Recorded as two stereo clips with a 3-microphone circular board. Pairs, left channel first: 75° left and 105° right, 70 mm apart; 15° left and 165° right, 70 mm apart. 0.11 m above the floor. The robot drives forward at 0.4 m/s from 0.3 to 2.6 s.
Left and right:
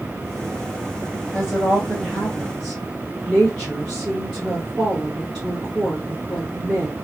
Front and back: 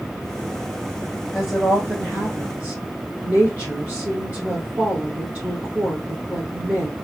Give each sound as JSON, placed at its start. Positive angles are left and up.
{"t": 1.3, "sound": "a woman speaking", "azimuth_deg": 125, "distance_m": 1.4}